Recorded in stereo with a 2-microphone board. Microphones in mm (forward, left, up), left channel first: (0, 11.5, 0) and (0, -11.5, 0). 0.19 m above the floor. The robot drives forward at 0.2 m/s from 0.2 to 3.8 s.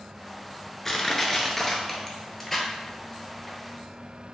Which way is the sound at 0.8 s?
15° left (ahead or behind).